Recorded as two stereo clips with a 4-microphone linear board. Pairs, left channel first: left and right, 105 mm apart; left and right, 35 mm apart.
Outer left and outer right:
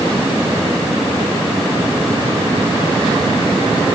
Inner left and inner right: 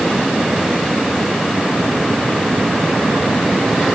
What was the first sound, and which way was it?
Only background noise.